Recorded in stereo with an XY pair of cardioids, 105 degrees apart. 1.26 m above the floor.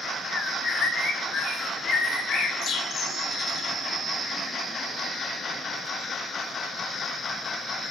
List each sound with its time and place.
0.3 s a bird: 60° left, 4 m